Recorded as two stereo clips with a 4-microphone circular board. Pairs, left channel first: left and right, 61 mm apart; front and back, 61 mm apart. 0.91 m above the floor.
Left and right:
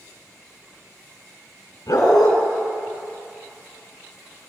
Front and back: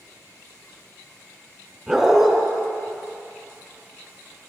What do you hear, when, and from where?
1.9 s a dog barking: 95° left, 3.5 m